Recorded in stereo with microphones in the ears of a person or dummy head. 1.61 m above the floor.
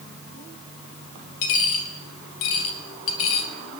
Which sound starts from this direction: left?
A dropped coin, at 1.4 s.